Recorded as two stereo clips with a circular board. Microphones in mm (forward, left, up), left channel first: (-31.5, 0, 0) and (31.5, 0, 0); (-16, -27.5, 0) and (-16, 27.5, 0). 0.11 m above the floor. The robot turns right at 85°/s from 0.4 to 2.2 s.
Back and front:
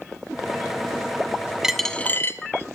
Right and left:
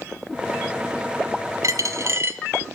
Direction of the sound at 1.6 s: 80° left.